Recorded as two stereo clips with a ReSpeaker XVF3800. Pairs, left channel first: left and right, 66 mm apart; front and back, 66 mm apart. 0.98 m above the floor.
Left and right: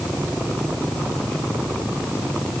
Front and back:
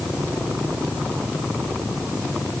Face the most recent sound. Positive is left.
No sound to turn to.